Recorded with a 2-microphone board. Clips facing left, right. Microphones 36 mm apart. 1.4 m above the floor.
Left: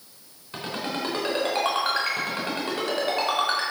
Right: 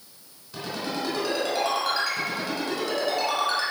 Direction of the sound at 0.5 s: 40° left (ahead or behind).